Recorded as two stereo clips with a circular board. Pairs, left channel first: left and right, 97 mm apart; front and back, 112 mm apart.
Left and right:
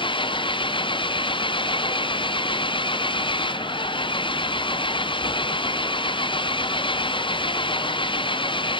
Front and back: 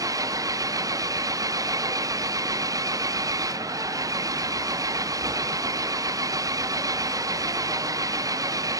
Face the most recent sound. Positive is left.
turn(degrees=120)